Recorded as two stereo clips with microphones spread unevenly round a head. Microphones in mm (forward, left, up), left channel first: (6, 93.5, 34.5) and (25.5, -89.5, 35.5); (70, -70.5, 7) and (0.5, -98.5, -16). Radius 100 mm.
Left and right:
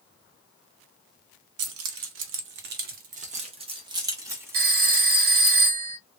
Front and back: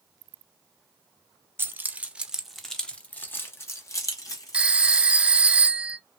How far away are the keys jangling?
About 1.0 m.